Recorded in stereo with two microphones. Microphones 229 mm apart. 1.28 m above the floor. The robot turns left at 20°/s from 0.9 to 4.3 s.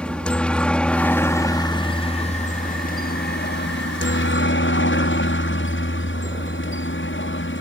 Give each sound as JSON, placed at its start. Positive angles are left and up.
{"t": 0.0, "sound": "a helicopter", "azimuth_deg": 175}